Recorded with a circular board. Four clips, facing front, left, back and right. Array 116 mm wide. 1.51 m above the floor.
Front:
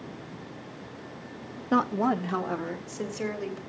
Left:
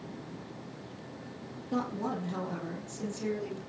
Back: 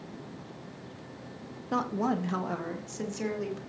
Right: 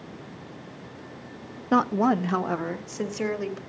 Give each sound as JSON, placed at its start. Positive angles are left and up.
{"t": 1.7, "sound": "a woman speaking", "azimuth_deg": -70, "distance_m": 0.8}